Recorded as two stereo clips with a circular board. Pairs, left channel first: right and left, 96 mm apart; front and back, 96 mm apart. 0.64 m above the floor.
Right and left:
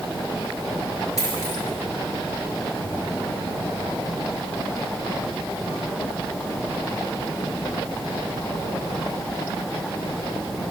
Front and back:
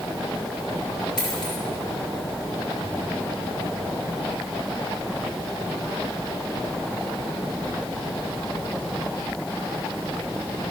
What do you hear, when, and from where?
1.2 s a dropped coin: 40° right, 5 m